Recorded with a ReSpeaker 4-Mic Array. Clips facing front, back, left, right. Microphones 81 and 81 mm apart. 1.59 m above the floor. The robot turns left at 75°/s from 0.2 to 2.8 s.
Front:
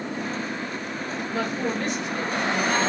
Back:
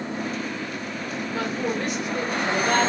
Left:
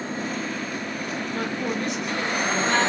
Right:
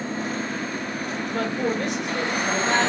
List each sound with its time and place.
1.3 s a woman speaking: 55° right, 2.5 m; by 2.9 s 165° right, 2.5 m